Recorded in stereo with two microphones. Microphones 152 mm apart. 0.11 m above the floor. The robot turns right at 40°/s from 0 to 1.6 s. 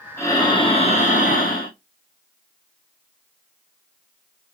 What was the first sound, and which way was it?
Breathing, 20° left.